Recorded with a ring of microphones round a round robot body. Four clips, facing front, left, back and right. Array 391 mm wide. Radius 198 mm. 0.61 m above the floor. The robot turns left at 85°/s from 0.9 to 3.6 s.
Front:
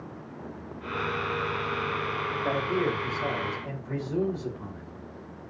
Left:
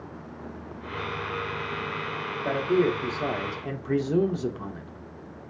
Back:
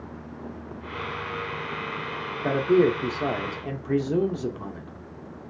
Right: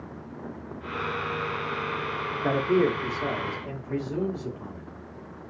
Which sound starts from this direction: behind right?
A man speaking, at 2.4 s.